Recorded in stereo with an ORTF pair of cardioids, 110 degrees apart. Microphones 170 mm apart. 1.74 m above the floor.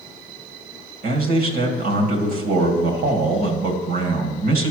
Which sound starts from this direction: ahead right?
A man speaking, at 1.0 s.